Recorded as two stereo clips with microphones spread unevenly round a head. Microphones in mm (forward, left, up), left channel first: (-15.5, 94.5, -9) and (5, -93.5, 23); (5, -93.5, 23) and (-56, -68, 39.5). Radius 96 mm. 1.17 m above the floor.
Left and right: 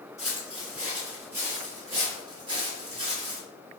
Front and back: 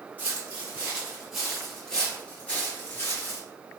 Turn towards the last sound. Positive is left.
turn(degrees=-65)